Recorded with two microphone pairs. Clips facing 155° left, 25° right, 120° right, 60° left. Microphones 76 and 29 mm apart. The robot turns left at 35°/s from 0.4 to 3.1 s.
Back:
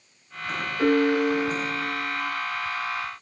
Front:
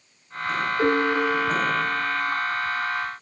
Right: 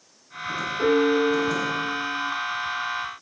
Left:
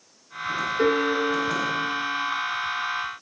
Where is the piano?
35° left, 1.7 m; by 2.3 s 15° right, 1.7 m.